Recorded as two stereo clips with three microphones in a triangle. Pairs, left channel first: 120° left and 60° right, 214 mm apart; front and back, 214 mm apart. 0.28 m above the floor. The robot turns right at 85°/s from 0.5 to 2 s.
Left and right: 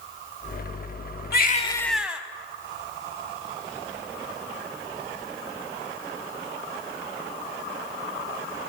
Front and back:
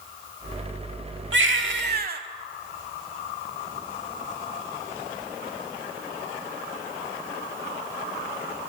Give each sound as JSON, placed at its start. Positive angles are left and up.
{"t": 1.3, "sound": "a baby crying", "azimuth_deg": 155, "distance_m": 0.7}